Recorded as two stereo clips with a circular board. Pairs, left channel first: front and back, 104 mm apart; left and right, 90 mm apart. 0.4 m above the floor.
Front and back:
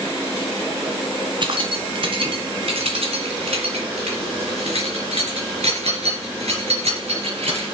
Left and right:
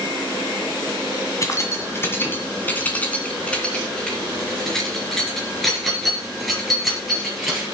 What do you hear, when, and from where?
1.4 s keys jangling: 145° left, 1.8 m; by 7.7 s 175° right, 5 m